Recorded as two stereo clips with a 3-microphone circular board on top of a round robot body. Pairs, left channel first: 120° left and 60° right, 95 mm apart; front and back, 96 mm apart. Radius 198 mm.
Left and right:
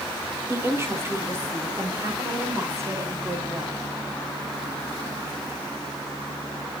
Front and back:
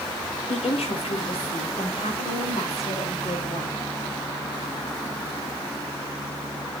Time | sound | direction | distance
0.5 | a woman speaking | 5° left | 3.5 m